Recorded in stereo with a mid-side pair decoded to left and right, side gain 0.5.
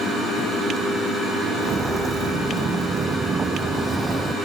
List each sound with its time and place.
1.6 s footsteps: 40° right; by 4.3 s 20° right